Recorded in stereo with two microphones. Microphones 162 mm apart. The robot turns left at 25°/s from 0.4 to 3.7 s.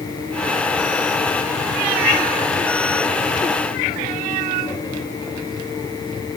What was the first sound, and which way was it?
Only background noise.